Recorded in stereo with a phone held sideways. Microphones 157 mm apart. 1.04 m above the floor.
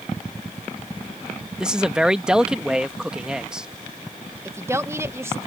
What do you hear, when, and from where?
1.6 s a man speaking: 5° right (ahead or behind)
4.5 s a woman speaking: 20° right (ahead or behind)